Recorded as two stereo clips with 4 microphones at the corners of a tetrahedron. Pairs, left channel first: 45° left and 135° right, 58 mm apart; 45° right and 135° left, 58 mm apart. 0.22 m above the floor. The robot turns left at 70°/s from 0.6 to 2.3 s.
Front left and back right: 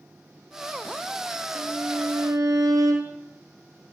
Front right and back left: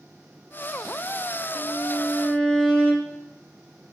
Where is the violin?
70° right, 2.5 m; by 3.2 s 120° right, 2.5 m.